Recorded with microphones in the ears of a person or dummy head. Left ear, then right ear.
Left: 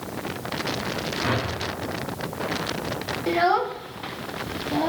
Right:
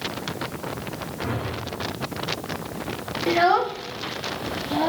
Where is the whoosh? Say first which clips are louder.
Left 3 dB; 75° left (ahead or behind), 3.5 m.